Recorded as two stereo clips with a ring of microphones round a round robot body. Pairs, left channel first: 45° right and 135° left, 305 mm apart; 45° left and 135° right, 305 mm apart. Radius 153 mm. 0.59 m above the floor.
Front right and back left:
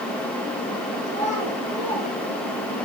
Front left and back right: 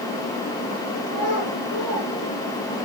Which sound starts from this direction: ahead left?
A child speaking, at 1.1 s.